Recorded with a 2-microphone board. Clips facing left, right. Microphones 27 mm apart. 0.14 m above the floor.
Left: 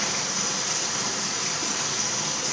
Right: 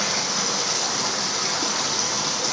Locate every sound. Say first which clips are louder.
0.0 s running water: right 4 dB; 55° right (ahead or behind), 1.7 m